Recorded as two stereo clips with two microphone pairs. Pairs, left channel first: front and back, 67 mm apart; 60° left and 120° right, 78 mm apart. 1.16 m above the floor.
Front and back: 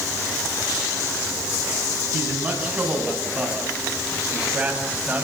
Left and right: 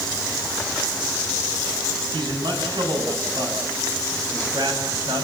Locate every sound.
2.1 s a man speaking: 105° right, 7.5 m; by 5.2 s 110° right, 6 m